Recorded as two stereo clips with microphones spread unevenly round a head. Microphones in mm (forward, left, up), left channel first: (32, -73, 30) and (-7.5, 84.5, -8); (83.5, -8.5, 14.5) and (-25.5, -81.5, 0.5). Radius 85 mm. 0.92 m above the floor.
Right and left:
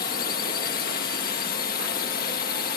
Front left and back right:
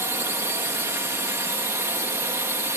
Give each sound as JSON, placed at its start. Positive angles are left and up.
{"t": 0.0, "sound": "a drone", "azimuth_deg": -85}